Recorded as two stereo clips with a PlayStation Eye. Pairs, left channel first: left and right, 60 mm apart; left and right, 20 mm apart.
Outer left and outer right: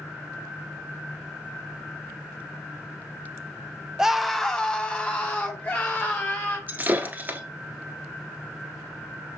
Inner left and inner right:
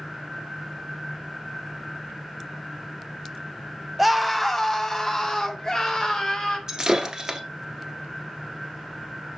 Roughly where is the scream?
Centre.